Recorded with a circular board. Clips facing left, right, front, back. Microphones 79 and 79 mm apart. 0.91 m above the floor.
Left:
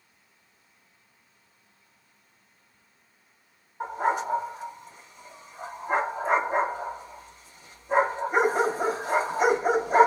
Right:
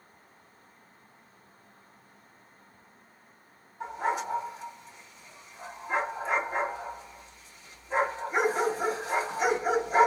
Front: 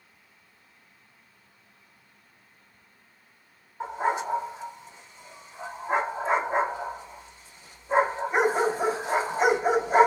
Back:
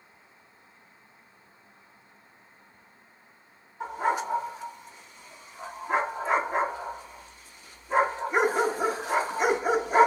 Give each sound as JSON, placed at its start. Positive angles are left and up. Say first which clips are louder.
{"t": 3.8, "sound": "a dog barking", "louder": "left 4 dB, even", "azimuth_deg": 55, "distance_m": 2.5}